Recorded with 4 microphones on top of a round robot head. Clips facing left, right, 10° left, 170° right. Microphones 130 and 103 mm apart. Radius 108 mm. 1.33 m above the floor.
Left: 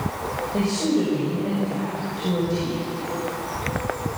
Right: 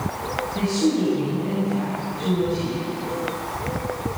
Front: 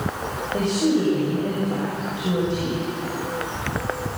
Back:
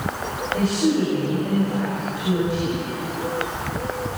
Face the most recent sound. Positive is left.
turn(degrees=70)